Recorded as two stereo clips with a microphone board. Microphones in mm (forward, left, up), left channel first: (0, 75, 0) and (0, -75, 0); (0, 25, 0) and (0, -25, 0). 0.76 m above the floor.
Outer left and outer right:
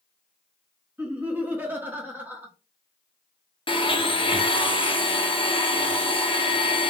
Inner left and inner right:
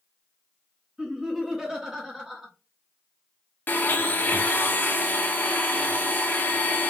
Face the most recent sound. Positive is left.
turn(degrees=35)  # may be behind; listen again after turning